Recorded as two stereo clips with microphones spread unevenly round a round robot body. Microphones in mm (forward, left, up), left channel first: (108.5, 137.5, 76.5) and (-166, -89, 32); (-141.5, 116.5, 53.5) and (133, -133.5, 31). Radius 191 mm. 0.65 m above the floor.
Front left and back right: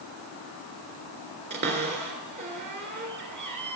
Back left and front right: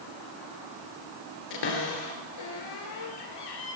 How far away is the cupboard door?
About 3 m.